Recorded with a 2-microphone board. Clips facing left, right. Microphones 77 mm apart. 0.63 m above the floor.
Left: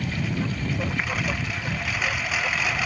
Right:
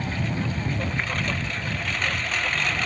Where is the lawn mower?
10° left (ahead or behind).